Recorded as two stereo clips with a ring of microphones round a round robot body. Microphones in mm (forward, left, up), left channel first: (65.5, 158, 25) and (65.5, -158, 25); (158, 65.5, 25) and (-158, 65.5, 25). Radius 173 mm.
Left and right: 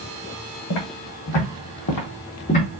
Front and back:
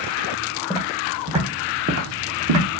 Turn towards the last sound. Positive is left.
turn(degrees=165)